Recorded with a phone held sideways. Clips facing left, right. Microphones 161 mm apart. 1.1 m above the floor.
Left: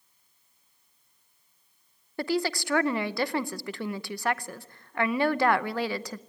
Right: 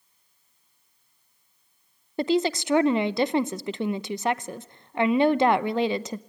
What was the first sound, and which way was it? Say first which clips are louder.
A woman speaking: right 5 dB; 20° right (ahead or behind).